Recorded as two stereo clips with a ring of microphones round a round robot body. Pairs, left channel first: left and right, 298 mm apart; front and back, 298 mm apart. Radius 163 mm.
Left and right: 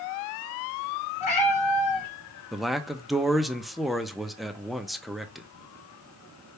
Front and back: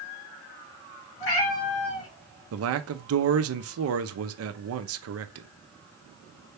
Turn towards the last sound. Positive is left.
turn(degrees=180)